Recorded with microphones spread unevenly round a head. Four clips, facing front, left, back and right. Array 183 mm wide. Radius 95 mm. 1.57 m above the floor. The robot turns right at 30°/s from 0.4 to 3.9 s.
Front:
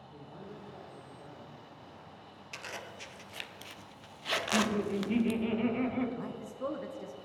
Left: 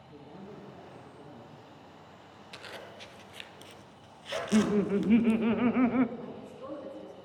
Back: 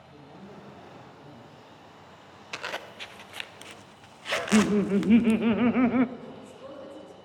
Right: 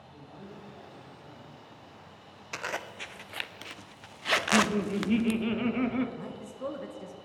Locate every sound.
0.1 s a man speaking: 100° left, 3 m; by 1.5 s 135° left, 3 m
2.5 s a zipper: 135° right, 0.6 m; by 5.3 s 90° right, 0.6 m
4.3 s laughter: 175° left, 0.6 m
6.2 s a man speaking: 55° right, 1.8 m